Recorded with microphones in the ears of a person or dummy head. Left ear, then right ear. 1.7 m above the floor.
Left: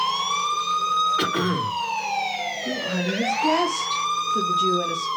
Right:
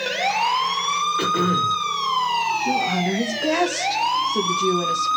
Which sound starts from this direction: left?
Throat clearing, at 1.2 s.